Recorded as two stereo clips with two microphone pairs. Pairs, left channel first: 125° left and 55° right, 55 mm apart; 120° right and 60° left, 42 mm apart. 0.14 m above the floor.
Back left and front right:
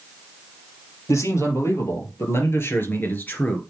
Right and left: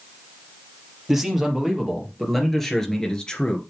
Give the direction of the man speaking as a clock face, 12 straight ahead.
7 o'clock.